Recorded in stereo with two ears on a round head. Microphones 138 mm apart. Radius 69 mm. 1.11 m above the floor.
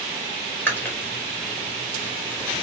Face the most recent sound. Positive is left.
turn(degrees=15)  # may be behind; listen again after turning